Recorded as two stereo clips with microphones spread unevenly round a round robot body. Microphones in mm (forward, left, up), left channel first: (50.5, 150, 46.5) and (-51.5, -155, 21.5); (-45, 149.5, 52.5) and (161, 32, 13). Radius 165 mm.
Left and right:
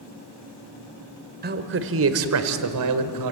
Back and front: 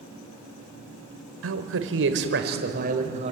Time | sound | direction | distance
1.4 | a man speaking | 50° right | 1.9 m